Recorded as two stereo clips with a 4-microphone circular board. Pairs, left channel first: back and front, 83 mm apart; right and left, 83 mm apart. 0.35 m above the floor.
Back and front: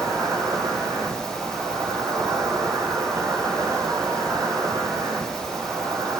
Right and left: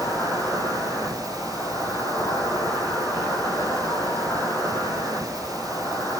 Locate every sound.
0.0 s an insect: 40° right, 3 m